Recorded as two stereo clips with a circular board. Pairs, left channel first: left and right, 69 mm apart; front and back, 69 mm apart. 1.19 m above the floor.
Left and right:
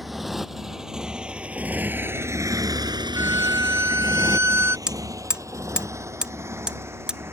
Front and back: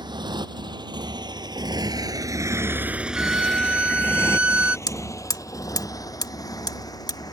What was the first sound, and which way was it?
A motorcycle, straight behind.